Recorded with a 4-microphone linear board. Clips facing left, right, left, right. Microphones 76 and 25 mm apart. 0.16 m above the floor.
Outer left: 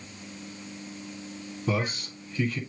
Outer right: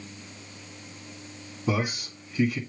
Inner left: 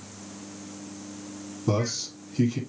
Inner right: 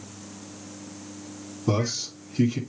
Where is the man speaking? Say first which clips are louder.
Outer right 1 dB, inner right 1 dB; 10° right (ahead or behind), 1.4 m.